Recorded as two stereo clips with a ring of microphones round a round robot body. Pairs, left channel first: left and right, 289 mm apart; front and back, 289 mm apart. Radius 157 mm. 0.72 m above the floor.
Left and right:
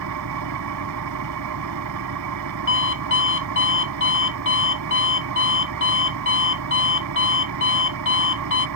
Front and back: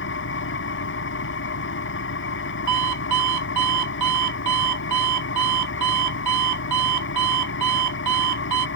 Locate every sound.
0.0 s an engine running: 50° right
2.7 s an alarm clock: 140° left